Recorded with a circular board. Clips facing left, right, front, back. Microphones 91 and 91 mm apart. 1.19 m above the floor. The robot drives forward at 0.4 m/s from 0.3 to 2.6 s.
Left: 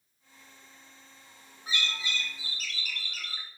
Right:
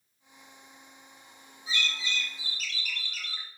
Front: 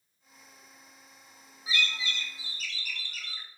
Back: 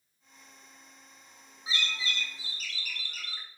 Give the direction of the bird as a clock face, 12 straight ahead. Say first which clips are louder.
Right 1 dB, front 2 dB; 8 o'clock.